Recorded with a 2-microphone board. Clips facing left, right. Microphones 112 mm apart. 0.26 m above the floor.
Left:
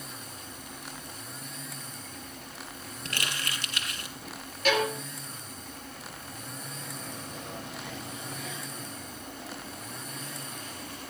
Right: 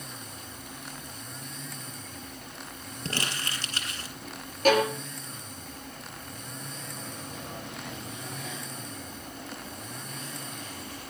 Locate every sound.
3.0 s crumpling: 35° right (ahead or behind), 4 m
4.7 s a violin: 45° right (ahead or behind), 3 m